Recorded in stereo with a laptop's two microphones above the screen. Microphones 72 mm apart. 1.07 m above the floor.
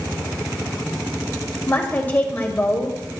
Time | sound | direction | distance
1.7 | a woman speaking | 25° left (ahead or behind) | 2.5 m